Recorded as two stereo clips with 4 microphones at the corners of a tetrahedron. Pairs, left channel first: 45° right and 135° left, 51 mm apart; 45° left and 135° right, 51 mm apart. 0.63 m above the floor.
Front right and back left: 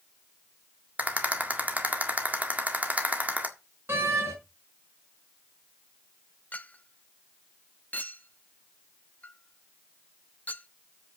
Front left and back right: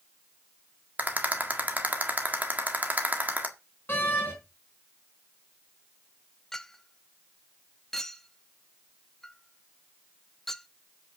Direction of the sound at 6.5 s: 25° right.